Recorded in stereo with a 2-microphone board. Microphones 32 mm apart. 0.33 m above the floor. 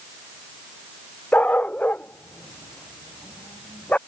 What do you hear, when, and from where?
1.3 s a dog barking: 45° left (ahead or behind)